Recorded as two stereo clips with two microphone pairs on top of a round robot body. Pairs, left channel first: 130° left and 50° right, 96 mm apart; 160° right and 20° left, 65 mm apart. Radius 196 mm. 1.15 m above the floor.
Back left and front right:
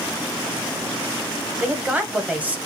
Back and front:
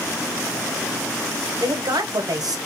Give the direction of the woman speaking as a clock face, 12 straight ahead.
11 o'clock.